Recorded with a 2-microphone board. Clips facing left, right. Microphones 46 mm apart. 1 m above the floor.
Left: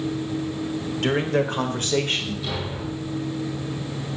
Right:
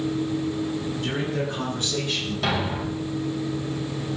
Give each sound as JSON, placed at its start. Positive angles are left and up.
{"t": 1.0, "sound": "a man speaking", "side_deg": 60, "distance_m": 4.0}
{"t": 2.4, "sound": "a thud", "side_deg": -70, "distance_m": 3.0}